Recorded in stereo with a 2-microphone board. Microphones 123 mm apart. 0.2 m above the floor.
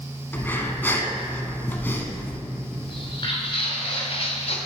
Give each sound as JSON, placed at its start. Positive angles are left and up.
{"t": 0.3, "sound": "breathing", "side_deg": 15, "distance_m": 0.9}
{"t": 2.9, "sound": "footsteps", "side_deg": 35, "distance_m": 3.0}